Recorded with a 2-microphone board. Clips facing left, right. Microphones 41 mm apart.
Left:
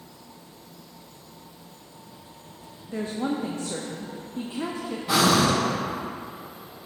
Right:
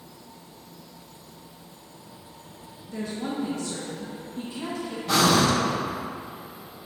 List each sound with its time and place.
2.9 s a woman speaking: 35° left (ahead or behind), 0.7 m
5.1 s breathing: 5° left (ahead or behind), 0.9 m